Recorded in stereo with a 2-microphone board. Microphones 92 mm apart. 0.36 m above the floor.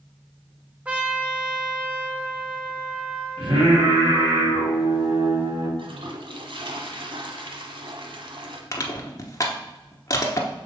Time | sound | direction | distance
0.8 | a trumpet | 15° right (ahead or behind) | 1.0 m
3.4 | singing | 65° right (ahead or behind) | 2.5 m
5.8 | a toilet flushing | 65° right (ahead or behind) | 0.9 m
8.7 | crushing | 40° left (ahead or behind) | 0.9 m